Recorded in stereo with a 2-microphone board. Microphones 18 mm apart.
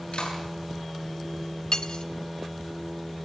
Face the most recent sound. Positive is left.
turn(degrees=55)  # may be behind; listen again after turning